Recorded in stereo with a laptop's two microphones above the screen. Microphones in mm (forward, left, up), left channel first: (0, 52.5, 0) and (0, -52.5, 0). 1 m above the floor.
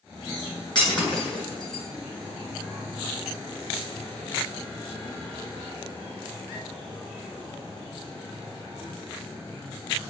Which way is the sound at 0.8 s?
45° left (ahead or behind).